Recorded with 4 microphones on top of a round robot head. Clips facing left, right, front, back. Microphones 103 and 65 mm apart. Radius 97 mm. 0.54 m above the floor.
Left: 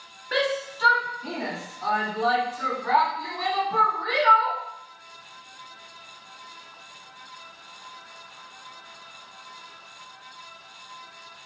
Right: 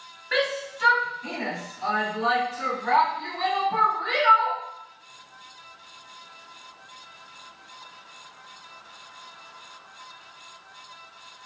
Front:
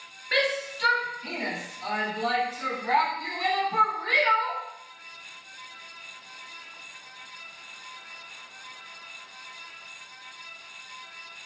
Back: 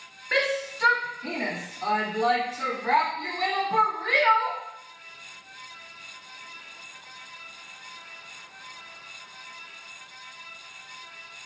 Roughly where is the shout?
Behind left.